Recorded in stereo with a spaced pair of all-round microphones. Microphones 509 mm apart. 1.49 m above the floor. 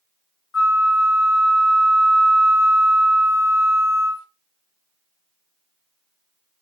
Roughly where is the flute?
Left.